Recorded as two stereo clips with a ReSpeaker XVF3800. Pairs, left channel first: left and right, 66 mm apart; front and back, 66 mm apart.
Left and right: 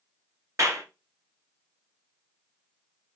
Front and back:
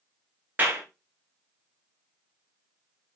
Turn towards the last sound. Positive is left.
turn(degrees=-115)